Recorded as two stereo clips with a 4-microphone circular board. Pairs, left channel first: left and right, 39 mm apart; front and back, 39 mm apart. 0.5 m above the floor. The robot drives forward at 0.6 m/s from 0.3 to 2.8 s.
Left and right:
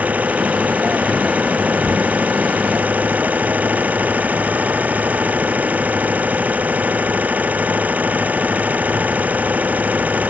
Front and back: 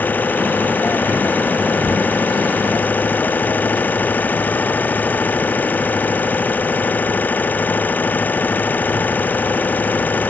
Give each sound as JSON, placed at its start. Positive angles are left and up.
{"t": 0.0, "sound": "an engine running", "azimuth_deg": -40}